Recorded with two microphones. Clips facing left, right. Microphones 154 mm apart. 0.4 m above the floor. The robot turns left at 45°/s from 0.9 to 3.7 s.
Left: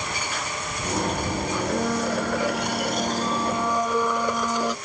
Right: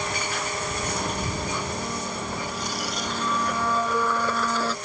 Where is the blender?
110° left; by 4.8 s 15° left.